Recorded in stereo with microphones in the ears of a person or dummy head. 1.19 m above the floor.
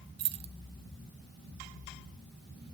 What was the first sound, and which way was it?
Keys jangling, 45° right (ahead or behind).